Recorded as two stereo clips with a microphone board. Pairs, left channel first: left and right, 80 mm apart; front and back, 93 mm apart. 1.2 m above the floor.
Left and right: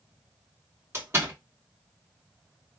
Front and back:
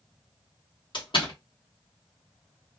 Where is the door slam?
30° right, 1.3 m.